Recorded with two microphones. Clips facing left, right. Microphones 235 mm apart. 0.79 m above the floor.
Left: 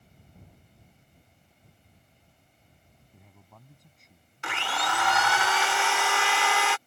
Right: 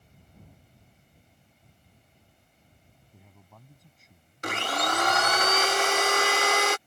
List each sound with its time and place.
3.1 s a man speaking: centre (ahead or behind)
4.4 s a blender: 45° right (ahead or behind)